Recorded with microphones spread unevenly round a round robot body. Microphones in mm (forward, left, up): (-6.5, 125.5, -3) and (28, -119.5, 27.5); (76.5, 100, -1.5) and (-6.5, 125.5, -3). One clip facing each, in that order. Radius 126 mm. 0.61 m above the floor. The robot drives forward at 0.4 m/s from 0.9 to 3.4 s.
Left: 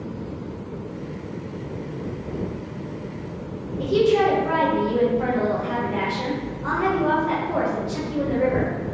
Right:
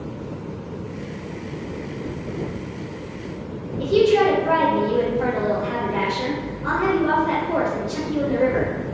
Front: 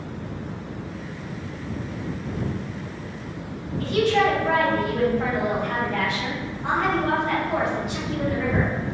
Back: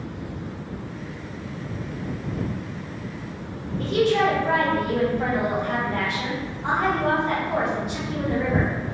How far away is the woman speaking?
About 1.6 m.